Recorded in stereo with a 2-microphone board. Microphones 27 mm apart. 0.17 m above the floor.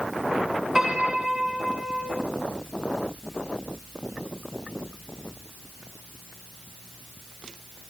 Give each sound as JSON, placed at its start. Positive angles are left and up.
{"t": 0.8, "sound": "a piano", "side_deg": -20, "distance_m": 1.7}